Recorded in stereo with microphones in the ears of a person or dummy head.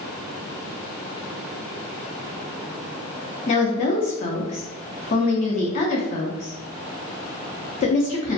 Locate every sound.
3.5 s a woman speaking: 35° left (ahead or behind), 0.5 m